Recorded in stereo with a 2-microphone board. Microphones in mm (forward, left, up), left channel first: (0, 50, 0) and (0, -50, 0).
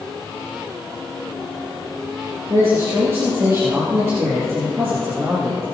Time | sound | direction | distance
2.5 | a man speaking | 30° right (ahead or behind) | 4.5 m